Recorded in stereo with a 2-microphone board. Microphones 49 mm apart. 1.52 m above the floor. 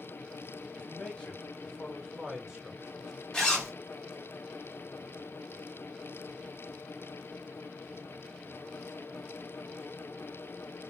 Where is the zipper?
15° left (ahead or behind), 1.2 m.